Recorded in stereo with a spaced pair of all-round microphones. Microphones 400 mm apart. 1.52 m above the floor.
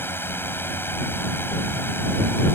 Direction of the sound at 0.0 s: 5° left (ahead or behind).